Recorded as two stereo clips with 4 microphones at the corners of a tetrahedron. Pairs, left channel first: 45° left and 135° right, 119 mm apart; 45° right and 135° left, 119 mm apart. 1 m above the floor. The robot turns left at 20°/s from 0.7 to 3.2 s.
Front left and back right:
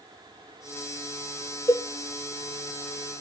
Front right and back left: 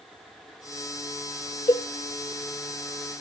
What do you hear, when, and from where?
1.7 s a cowbell: 10° right, 1.0 m; by 1.9 s 15° right, 1.0 m